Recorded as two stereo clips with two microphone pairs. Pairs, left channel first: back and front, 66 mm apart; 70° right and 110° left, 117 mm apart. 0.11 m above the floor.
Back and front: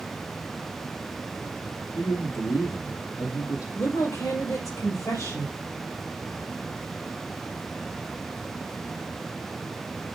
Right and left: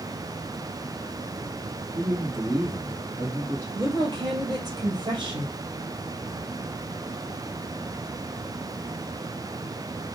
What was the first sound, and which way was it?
A man speaking, 165° left.